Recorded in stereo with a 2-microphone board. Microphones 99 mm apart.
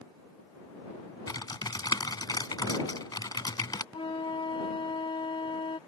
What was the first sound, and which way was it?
Typing on a keyboard, 45° left (ahead or behind).